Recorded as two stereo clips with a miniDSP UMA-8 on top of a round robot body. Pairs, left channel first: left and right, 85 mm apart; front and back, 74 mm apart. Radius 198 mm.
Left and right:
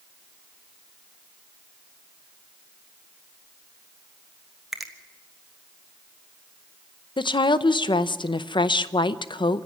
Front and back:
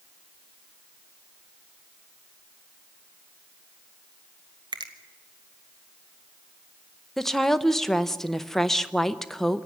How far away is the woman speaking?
About 0.8 m.